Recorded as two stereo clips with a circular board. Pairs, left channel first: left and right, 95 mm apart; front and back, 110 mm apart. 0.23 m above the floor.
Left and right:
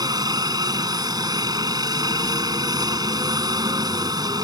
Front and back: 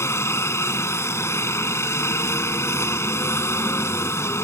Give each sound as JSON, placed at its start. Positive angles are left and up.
{"t": 0.0, "sound": "a helicopter", "azimuth_deg": -60}